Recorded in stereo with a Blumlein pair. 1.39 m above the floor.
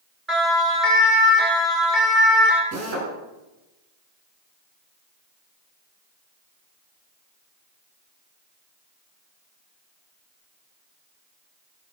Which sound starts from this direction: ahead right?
A drill, at 2.7 s.